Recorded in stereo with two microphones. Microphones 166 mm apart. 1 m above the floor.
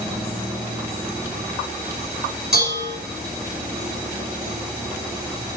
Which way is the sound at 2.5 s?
90° right.